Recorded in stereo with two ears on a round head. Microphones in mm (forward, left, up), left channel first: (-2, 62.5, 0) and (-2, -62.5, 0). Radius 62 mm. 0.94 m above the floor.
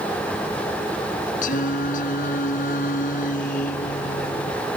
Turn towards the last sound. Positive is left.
turn(degrees=65)  # may be behind; listen again after turning